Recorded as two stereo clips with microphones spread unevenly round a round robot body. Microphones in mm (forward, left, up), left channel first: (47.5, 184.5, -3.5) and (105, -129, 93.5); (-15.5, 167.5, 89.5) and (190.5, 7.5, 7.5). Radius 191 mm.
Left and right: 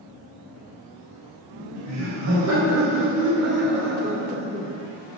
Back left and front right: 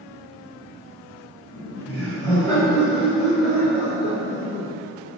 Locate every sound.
1.5 s laughter: 130° right, 5.5 m; by 4.8 s 175° right, 2 m